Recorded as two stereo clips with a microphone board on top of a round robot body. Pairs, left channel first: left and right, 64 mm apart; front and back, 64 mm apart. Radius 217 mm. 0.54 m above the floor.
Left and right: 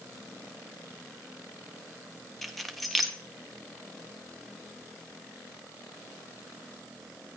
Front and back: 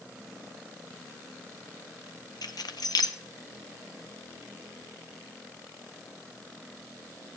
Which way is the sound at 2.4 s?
Straight ahead.